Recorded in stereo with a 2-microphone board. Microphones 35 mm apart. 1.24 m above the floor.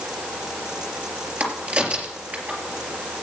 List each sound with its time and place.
1.4 s a crack: 45° right (ahead or behind), 3.5 m